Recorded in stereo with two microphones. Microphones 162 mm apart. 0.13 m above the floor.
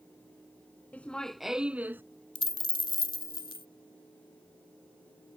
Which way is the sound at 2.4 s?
30° left (ahead or behind).